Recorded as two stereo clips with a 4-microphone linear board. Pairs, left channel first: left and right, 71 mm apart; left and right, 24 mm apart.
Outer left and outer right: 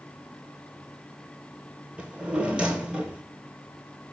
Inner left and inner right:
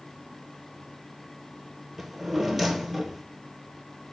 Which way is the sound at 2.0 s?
15° right (ahead or behind).